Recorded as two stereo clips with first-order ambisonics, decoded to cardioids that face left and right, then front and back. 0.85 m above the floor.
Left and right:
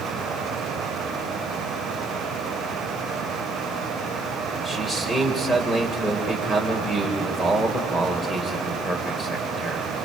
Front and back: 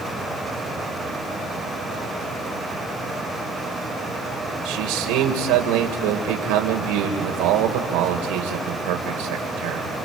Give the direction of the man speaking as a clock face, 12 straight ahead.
6 o'clock.